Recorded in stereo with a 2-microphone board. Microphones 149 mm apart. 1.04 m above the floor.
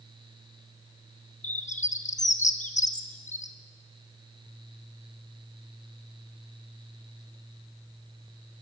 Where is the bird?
55° left (ahead or behind), 1.3 m.